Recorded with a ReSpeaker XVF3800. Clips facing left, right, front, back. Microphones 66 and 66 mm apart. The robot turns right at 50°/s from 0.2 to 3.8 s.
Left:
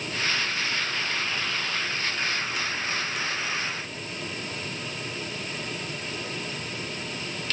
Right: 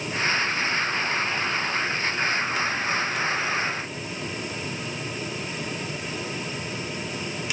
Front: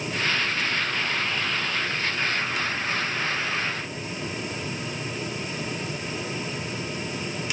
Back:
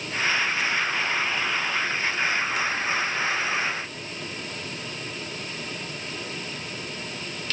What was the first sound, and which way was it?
Only background noise.